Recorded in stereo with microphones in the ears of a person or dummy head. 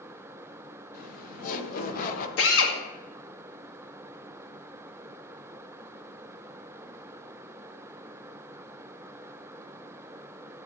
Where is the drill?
70° left (ahead or behind), 2.0 m.